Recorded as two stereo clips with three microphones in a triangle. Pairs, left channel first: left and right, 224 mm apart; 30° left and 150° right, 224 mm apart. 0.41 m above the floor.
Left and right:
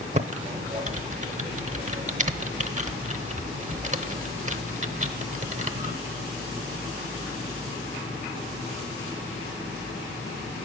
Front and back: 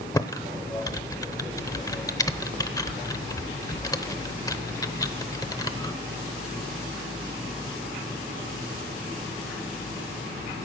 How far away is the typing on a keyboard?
About 0.8 m.